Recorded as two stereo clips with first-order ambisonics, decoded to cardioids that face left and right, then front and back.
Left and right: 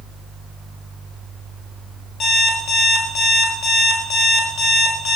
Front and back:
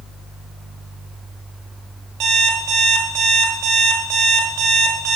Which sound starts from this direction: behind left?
An alarm clock, at 2.2 s.